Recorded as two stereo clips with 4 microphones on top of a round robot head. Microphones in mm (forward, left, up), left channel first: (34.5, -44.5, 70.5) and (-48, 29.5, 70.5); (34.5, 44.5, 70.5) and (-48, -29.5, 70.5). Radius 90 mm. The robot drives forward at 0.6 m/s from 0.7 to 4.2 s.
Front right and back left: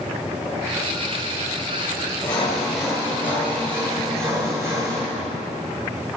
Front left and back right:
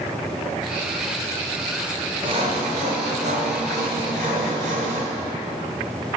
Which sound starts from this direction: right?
Sawing, at 2.2 s.